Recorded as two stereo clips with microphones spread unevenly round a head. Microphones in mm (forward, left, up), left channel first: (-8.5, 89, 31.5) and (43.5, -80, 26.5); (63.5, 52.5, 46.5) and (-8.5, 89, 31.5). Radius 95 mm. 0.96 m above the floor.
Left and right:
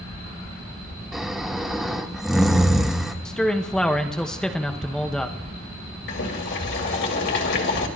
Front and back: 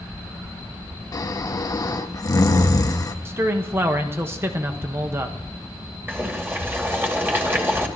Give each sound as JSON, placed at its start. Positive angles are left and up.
{"t": 1.1, "sound": "snoring", "azimuth_deg": 15, "distance_m": 1.4}
{"t": 3.2, "sound": "a man speaking", "azimuth_deg": -165, "distance_m": 1.1}
{"t": 6.1, "sound": "boiling", "azimuth_deg": 85, "distance_m": 3.0}